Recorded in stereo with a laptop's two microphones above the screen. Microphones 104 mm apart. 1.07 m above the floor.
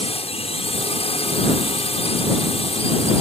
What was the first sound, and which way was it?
A drone, 70° left (ahead or behind).